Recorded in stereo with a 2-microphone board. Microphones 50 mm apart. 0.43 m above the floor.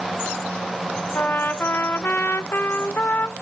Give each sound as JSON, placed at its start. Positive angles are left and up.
{"t": 1.1, "sound": "a trumpet", "side_deg": 45, "distance_m": 0.9}